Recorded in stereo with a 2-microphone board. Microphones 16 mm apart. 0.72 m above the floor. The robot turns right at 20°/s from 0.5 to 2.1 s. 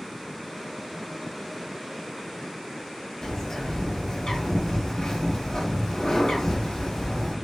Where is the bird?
50° left (ahead or behind), 1.2 m.